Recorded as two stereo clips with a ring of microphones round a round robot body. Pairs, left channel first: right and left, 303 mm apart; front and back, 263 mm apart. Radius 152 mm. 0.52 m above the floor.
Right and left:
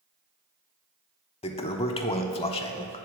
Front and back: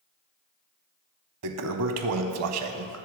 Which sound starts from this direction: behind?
A toilet flushing, at 1.4 s.